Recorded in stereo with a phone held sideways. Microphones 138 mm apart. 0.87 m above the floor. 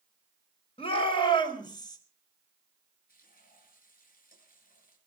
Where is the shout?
40° left (ahead or behind), 4 m; by 2.0 s 25° left (ahead or behind), 4 m.